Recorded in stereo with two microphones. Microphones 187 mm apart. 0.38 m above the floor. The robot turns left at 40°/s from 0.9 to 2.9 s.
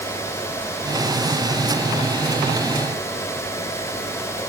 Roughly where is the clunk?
No clunk in this recording.